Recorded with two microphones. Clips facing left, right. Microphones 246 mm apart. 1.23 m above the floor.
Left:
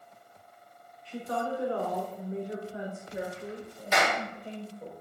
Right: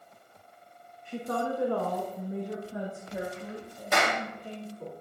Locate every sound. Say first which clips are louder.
1.1 s a woman speaking: right 2 dB; 50° right (ahead or behind), 1.5 m; by 4.9 s 80° right, 3.5 m
3.9 s a clap: even; 55° right (ahead or behind), 3.5 m